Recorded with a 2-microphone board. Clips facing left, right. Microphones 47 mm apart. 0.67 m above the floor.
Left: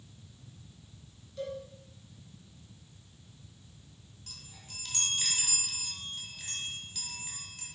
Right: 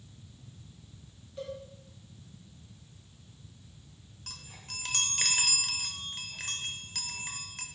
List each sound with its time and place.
1.4 s a cowbell: 25° right (ahead or behind), 3.5 m
4.3 s a chime: 80° right, 1.0 m